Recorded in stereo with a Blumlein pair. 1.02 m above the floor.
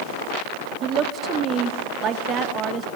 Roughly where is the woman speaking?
Ahead right.